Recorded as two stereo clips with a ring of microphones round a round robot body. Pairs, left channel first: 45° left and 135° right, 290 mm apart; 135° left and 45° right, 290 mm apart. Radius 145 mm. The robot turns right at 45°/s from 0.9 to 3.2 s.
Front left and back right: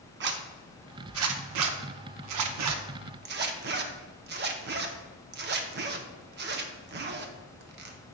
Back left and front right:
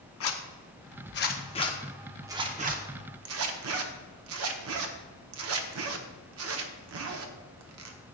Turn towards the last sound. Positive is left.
turn(degrees=-80)